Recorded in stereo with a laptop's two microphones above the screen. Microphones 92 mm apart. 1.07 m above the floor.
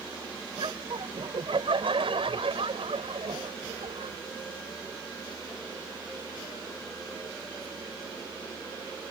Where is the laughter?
65° right (ahead or behind); by 4.2 s 85° right.